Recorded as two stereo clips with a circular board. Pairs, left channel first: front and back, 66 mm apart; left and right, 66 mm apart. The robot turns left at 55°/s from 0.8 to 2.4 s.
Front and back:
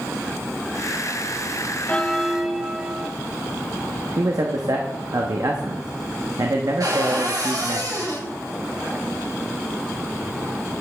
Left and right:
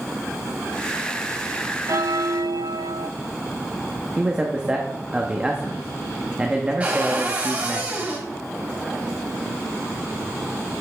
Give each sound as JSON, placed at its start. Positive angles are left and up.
{"t": 1.9, "sound": "a bell", "azimuth_deg": -65, "distance_m": 0.5}
{"t": 4.2, "sound": "a man speaking", "azimuth_deg": -165, "distance_m": 1.0}
{"t": 6.8, "sound": "a cupboard door", "azimuth_deg": -155, "distance_m": 2.5}